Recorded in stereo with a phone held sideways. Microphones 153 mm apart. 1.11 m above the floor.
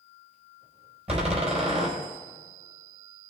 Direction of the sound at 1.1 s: 45° right (ahead or behind).